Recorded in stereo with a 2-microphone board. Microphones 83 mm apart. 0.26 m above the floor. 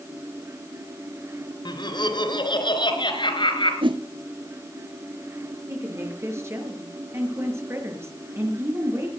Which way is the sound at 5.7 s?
30° right (ahead or behind).